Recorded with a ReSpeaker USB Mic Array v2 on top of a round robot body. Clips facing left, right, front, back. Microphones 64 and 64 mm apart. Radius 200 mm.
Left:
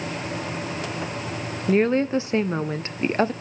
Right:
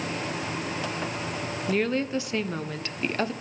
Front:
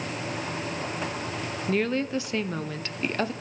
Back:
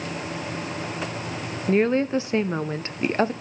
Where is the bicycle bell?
No bicycle bell in this recording.